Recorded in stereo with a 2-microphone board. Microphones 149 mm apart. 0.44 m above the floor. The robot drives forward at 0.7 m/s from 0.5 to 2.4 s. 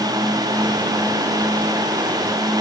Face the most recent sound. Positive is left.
No sound to turn to.